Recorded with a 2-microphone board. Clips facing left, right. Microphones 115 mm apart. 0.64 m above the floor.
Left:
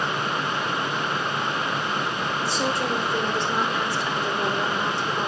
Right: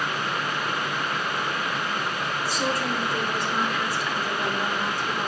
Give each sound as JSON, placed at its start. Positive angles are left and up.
{"t": 2.5, "sound": "a woman speaking", "side_deg": 25, "distance_m": 1.6}